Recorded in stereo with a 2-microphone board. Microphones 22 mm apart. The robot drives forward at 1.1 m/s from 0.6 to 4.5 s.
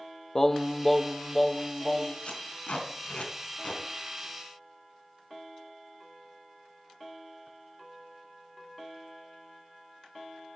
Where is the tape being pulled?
65° left (ahead or behind), 4 m; by 3.8 s 85° left, 3.5 m.